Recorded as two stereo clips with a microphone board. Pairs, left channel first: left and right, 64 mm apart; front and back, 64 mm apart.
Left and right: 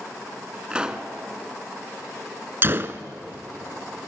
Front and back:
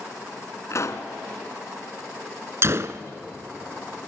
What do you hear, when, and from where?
0.7 s a pop: 20° right, 1.4 m
2.6 s a gunshot: 140° right, 0.9 m